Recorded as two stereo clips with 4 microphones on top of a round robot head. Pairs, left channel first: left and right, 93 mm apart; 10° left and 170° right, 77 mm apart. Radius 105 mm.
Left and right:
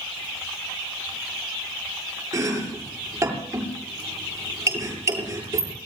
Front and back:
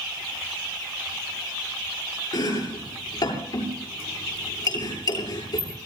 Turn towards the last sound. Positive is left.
turn(degrees=-30)